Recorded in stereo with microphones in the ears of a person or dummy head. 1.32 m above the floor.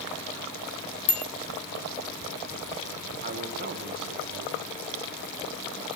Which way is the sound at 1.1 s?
35° left (ahead or behind).